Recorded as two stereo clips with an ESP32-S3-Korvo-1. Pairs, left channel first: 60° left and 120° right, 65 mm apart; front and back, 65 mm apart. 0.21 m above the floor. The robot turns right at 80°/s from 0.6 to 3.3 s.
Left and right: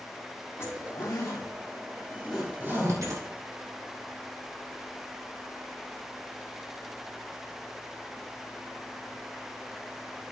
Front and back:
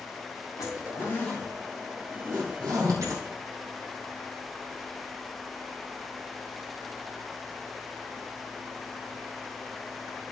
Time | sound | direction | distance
0.6 | a zipper | 15° left | 3.5 m